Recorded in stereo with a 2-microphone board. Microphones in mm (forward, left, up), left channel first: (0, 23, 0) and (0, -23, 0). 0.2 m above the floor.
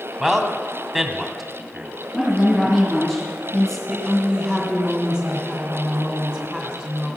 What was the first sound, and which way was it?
A man speaking, centre (ahead or behind).